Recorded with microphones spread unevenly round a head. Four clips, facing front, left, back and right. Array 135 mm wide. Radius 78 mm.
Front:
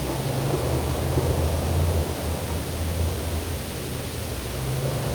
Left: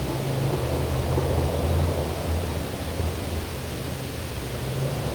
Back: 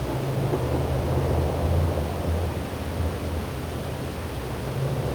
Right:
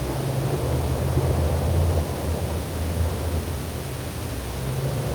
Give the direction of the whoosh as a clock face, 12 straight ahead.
No whoosh in this recording.